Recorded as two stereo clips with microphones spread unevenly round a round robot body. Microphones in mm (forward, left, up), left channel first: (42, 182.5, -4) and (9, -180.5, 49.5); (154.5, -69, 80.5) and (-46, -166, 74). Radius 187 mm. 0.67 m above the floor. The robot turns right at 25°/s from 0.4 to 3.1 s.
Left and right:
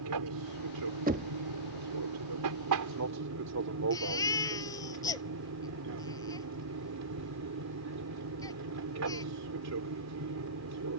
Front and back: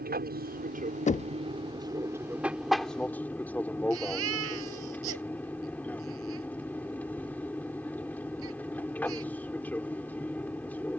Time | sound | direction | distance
0.0 | an aircraft | 125° right | ?
1.1 | knocking | 25° right | ?
3.9 | a baby crying | 165° left | ?